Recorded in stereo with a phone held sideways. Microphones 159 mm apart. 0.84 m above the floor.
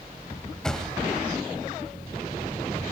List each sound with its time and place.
0.6 s a thud: 5° left (ahead or behind), 2.0 m